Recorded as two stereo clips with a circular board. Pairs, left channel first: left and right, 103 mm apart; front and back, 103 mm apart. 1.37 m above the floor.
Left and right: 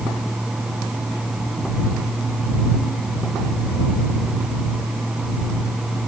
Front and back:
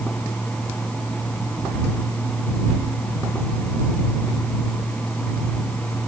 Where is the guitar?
I don't hear a guitar.